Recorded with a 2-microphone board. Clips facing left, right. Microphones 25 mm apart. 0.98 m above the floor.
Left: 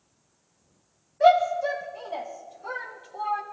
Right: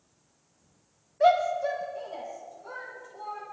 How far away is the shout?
About 1.3 m.